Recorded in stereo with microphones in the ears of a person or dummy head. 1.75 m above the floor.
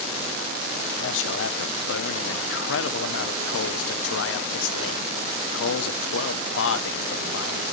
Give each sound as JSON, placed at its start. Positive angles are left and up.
{"t": 1.0, "sound": "a man speaking", "side_deg": 80, "distance_m": 1.3}